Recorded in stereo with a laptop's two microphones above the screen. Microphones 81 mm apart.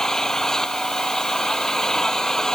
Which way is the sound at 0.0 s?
5° left (ahead or behind).